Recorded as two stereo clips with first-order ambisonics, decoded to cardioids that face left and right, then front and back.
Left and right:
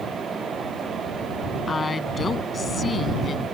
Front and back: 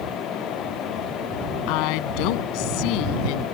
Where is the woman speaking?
15° left; by 3.5 s 20° left.